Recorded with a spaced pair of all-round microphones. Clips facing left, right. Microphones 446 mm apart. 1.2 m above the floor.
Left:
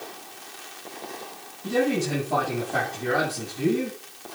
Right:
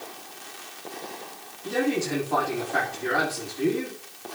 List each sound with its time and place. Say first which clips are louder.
1.6 s a man speaking: left 2 dB; 55° left (ahead or behind), 7 m